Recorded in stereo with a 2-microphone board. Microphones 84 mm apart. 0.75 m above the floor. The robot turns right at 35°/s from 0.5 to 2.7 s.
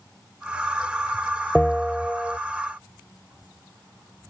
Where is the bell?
10° left (ahead or behind); by 2.4 s 15° right (ahead or behind).